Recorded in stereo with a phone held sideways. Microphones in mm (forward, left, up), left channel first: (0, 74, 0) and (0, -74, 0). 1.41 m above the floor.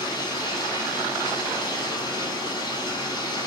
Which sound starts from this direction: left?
Running water, at 0.0 s.